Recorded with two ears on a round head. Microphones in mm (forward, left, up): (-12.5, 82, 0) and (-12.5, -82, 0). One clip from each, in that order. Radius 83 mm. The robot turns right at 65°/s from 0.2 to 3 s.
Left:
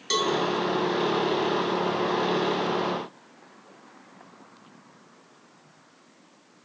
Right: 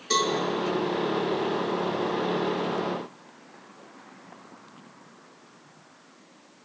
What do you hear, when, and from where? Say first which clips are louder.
0.1 s a cowbell: even; 70° left (ahead or behind), 4 m